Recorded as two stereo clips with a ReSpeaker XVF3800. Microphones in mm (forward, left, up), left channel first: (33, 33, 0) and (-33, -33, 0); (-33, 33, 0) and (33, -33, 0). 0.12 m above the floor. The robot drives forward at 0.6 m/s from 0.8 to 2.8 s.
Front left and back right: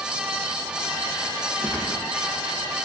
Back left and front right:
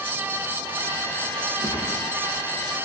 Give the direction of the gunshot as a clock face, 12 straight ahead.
8 o'clock.